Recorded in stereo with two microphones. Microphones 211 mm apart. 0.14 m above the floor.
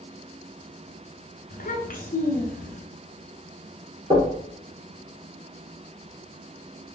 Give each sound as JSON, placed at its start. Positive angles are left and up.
{"t": 1.5, "sound": "a child speaking", "side_deg": 45, "distance_m": 1.1}
{"t": 4.1, "sound": "knocking", "side_deg": -25, "distance_m": 2.0}